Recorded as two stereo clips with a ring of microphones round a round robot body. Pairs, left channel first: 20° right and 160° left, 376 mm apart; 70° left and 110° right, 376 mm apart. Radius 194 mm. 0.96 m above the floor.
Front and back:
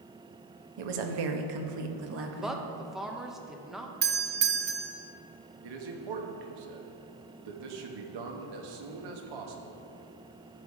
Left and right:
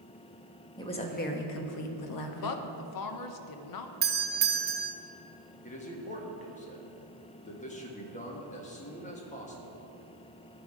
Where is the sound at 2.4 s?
70° left, 0.8 m.